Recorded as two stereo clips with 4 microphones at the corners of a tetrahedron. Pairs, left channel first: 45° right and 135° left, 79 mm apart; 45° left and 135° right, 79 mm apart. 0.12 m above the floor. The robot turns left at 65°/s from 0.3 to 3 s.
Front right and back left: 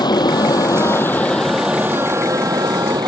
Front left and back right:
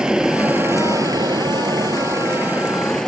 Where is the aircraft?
55° right; by 3.1 s 130° left.